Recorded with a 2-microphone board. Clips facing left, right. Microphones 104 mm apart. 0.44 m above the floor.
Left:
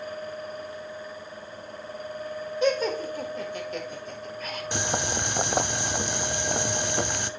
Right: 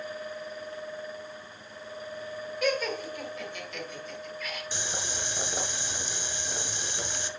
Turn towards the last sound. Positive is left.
turn(degrees=65)  # may be behind; listen again after turning